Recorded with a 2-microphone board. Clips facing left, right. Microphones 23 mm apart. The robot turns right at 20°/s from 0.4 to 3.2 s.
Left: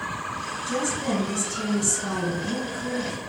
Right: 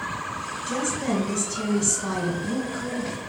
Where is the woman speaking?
155° right, 1.8 m; by 3.1 s 105° right, 1.8 m.